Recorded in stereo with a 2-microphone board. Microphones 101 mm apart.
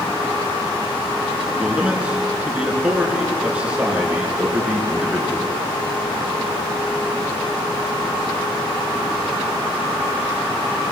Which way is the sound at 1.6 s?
10° right (ahead or behind).